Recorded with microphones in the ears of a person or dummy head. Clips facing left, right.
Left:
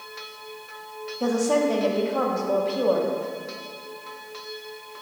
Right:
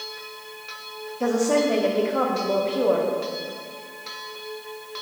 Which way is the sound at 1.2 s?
25° right (ahead or behind).